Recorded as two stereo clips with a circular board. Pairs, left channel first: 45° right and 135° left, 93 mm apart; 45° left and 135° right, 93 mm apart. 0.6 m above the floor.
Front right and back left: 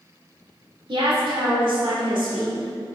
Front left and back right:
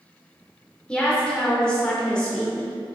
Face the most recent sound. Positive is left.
turn(degrees=125)